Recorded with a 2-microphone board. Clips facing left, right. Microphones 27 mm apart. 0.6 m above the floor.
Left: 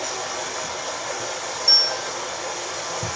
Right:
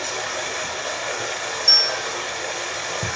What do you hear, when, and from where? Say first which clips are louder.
0.0 s running water: right 2 dB; 25° right (ahead or behind), 2.5 m
1.7 s a bell: right 1 dB; 20° right (ahead or behind), 1.5 m